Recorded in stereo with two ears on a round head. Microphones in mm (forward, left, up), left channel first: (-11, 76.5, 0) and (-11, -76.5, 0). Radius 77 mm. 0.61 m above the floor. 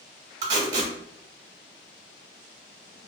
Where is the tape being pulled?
25° right (ahead or behind), 0.9 m.